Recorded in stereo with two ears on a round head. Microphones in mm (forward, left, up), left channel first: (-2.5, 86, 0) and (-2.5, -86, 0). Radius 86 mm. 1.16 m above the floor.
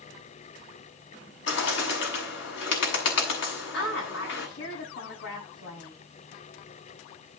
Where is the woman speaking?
70° left (ahead or behind), 6.5 m.